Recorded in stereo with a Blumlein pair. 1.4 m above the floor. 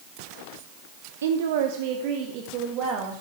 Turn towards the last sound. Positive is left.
turn(degrees=-35)